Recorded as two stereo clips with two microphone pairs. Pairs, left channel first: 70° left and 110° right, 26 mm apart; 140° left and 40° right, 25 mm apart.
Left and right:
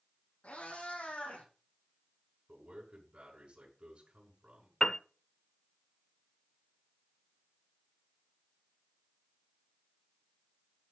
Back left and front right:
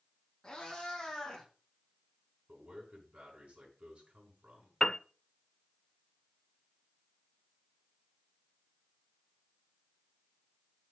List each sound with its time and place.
0.4 s a cat meowing: 80° left, 5.5 m; by 1.4 s 70° left, 6 m
2.5 s a man speaking: 70° right, 5 m
4.8 s a piano: 100° left, 0.5 m